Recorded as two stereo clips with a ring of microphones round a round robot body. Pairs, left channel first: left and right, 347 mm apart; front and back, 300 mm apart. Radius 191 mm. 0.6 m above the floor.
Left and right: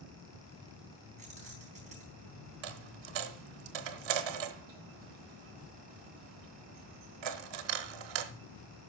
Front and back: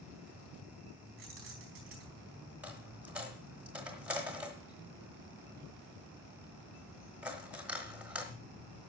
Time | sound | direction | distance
1.2 | keys jangling | 160° right | 4 m
2.6 | a dropped coin | 95° right | 1.1 m